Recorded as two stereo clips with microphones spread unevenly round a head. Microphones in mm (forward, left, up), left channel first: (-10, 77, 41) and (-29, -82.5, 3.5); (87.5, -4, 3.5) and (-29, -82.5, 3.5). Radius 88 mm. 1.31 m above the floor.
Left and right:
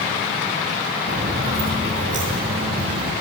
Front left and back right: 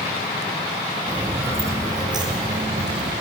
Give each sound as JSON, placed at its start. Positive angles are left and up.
{"t": 1.1, "sound": "footsteps", "azimuth_deg": -70, "distance_m": 1.5}